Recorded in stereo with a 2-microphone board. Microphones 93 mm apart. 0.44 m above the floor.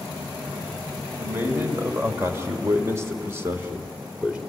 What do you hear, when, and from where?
1.2 s a man speaking: 25° right (ahead or behind), 3 m; by 4.4 s 15° right (ahead or behind), 1.9 m